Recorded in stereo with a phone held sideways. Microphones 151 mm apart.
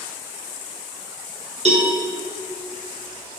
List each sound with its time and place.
1.6 s a cowbell: 45° right (ahead or behind), 1.7 m